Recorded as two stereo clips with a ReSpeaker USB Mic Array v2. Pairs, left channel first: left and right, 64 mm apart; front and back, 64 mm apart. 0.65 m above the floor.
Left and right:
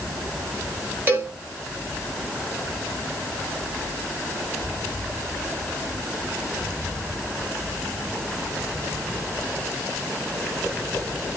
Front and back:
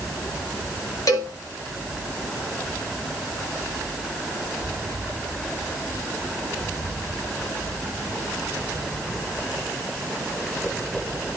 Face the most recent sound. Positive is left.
turn(degrees=-35)